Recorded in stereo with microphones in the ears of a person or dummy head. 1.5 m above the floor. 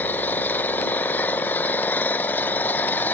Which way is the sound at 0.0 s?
10° left (ahead or behind).